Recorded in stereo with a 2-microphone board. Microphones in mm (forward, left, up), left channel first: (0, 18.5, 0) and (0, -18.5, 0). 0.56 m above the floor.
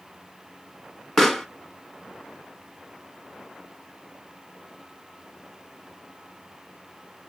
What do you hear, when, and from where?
1.2 s a pop: 10° left (ahead or behind), 1.0 m